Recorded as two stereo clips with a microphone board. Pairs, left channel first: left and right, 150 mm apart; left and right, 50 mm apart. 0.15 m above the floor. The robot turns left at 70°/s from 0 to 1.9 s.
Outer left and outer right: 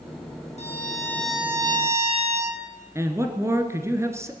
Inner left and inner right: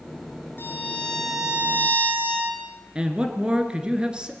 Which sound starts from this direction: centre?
A man speaking, at 3.0 s.